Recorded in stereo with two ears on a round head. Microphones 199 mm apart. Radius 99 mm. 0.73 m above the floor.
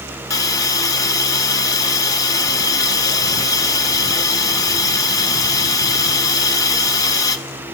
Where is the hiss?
15° left (ahead or behind), 0.6 m.